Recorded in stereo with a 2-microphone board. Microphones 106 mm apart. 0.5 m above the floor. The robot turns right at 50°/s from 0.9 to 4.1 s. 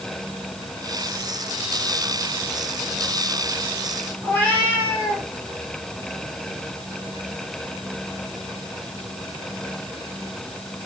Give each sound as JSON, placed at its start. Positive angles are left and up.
{"t": 4.2, "sound": "a cat meowing", "side_deg": 20, "distance_m": 6.5}